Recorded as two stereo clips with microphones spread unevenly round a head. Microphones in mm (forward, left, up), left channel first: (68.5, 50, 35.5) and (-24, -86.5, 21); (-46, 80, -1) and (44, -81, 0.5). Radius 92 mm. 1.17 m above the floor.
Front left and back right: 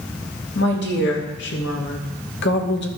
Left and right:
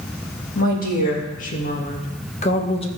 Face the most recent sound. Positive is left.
turn(degrees=60)